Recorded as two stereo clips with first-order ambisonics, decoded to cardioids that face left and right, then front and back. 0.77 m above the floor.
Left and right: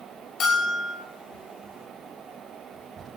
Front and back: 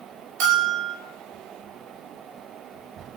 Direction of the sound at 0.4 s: 155° left.